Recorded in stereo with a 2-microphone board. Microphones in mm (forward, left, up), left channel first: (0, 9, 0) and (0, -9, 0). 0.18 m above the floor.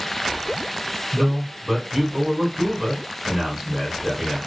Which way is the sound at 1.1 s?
25° right (ahead or behind).